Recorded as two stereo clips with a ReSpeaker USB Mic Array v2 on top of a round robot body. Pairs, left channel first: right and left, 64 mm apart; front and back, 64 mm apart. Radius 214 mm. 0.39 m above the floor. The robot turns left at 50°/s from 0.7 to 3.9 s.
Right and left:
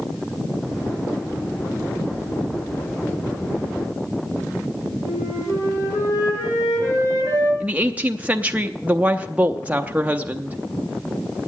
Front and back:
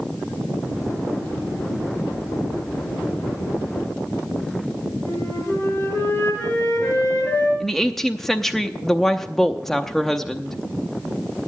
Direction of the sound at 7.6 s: 80° left.